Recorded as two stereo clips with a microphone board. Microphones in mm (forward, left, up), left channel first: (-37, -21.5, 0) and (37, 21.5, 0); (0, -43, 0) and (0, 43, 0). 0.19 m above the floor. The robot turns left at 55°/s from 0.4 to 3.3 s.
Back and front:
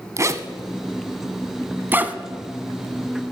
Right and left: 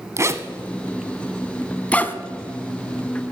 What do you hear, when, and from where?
0.2 s a zipper: 60° left, 0.9 m; by 2.2 s 35° right, 0.9 m